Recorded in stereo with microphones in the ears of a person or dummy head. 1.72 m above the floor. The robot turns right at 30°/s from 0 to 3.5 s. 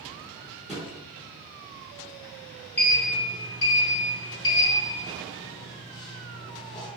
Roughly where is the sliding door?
Centre.